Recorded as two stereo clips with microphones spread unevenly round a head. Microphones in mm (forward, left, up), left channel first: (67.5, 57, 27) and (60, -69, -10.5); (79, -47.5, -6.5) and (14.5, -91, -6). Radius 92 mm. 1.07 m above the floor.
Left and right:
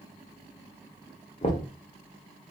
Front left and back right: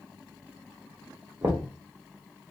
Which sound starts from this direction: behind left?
Knocking, at 1.4 s.